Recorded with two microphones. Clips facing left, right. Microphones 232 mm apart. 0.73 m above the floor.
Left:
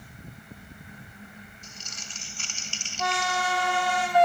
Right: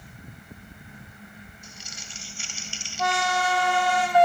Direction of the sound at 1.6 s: 10° right (ahead or behind).